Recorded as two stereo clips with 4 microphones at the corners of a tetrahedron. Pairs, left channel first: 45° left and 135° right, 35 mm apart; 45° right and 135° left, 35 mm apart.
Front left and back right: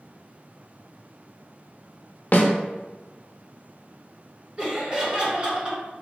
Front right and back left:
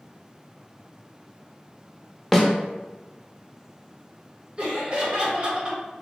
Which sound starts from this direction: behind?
Laughter, at 4.6 s.